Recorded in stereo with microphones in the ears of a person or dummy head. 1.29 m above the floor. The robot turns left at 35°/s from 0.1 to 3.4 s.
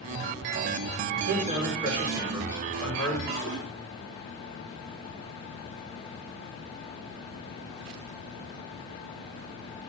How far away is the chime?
I don't hear a chime.